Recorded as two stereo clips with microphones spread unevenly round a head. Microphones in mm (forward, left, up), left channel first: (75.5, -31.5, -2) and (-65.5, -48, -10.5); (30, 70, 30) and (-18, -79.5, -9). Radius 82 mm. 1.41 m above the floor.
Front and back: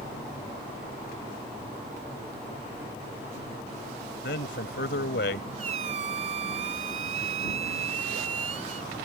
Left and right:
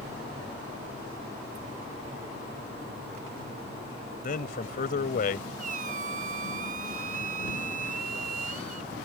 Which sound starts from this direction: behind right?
A squeak, at 5.6 s.